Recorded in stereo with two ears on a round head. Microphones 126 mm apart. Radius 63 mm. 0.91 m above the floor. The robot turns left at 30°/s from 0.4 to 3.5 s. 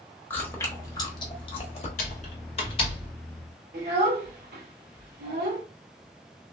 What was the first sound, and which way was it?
Chewing, 15° left (ahead or behind).